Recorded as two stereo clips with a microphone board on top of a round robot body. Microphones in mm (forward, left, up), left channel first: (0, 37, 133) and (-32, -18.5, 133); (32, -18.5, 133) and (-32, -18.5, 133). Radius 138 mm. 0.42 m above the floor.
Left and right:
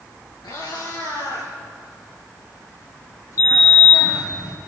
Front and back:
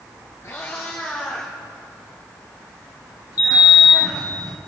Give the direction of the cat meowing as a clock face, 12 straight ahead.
10 o'clock.